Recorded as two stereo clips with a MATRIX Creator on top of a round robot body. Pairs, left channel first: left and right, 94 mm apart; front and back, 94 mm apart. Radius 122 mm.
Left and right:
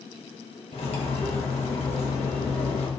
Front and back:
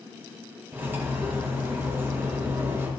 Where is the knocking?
I don't hear knocking.